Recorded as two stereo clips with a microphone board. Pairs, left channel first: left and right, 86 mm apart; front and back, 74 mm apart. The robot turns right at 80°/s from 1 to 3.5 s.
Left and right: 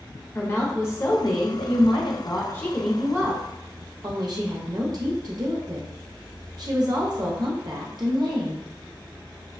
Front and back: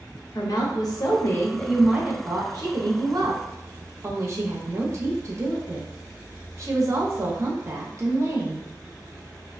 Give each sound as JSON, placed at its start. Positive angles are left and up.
{"t": 0.3, "sound": "a woman speaking", "azimuth_deg": 30, "distance_m": 0.7}